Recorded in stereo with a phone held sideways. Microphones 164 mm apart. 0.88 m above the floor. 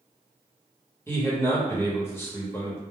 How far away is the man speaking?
About 1.0 m.